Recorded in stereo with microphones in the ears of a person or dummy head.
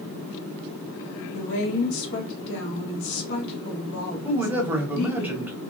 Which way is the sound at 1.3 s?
60° left (ahead or behind).